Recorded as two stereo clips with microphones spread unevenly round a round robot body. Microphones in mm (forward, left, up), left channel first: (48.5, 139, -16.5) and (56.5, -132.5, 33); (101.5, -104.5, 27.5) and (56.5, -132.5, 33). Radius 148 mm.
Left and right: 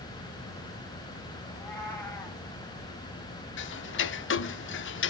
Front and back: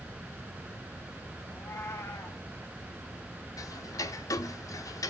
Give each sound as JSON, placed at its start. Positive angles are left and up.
{"t": 1.5, "sound": "a cat meowing", "azimuth_deg": 10, "distance_m": 3.0}
{"t": 3.6, "sound": "ticking", "azimuth_deg": 40, "distance_m": 0.7}